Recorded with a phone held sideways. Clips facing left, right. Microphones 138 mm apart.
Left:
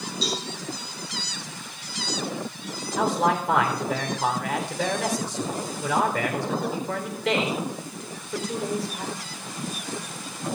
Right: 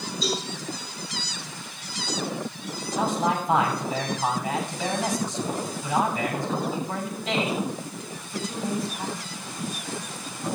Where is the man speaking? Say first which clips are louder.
Left 2 dB; 75° left (ahead or behind), 4 m.